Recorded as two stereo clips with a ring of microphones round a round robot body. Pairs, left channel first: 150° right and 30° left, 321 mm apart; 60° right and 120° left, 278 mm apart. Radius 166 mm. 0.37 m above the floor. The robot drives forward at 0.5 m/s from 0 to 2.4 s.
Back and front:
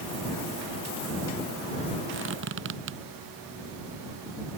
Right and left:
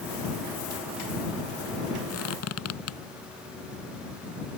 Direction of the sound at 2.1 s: 25° right.